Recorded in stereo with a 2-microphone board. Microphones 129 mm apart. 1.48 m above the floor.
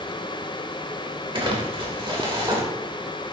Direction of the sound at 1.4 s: 45° right (ahead or behind).